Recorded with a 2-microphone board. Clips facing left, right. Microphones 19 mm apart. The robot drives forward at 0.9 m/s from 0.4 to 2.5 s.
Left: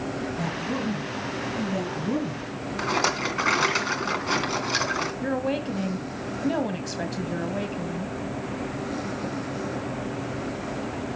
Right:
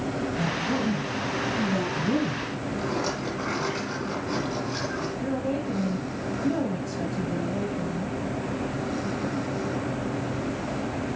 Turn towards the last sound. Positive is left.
turn(degrees=45)  # may be behind; listen again after turning